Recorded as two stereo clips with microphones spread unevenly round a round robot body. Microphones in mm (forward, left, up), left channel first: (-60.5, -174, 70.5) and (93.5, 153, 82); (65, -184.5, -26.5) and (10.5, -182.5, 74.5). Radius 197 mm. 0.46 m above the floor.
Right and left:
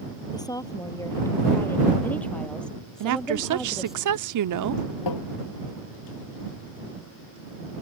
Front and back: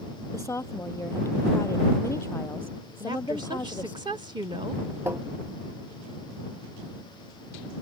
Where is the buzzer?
I don't hear a buzzer.